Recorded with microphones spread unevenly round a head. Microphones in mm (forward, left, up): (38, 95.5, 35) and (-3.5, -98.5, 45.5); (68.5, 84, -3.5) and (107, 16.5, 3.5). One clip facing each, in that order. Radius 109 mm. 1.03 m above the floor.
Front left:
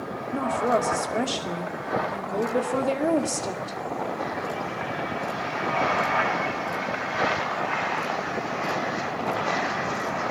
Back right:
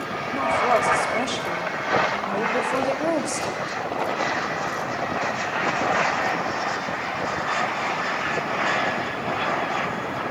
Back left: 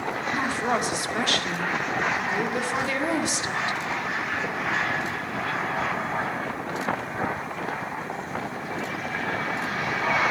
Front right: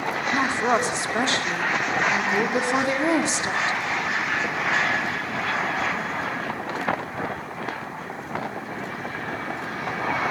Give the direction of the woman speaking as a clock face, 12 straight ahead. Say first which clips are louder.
Back right 1 dB, front right 4 dB; 12 o'clock.